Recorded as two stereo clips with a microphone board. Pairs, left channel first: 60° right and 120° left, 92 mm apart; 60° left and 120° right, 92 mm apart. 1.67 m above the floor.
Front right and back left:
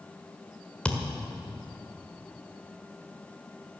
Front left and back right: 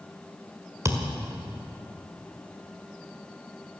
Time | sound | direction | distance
0.8 | a thud | 130° right | 1.6 m